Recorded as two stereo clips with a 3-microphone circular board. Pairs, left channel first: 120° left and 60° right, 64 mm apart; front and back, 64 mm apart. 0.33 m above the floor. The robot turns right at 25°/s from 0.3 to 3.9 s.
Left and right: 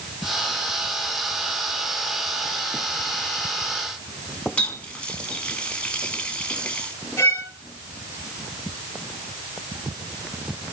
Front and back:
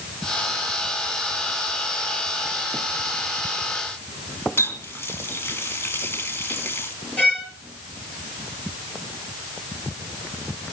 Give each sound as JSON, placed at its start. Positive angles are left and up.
{"t": 4.6, "sound": "a running tap", "azimuth_deg": 50, "distance_m": 2.0}
{"t": 7.2, "sound": "a violin", "azimuth_deg": 70, "distance_m": 6.5}